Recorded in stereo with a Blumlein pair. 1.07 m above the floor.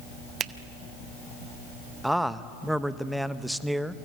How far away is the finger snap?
About 0.6 m.